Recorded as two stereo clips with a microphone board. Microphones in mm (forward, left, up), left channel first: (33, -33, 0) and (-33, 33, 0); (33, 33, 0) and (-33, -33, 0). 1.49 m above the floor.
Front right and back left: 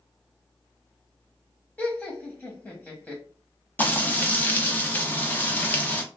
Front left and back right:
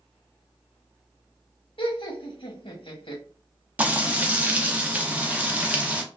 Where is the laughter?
35° left, 0.9 m.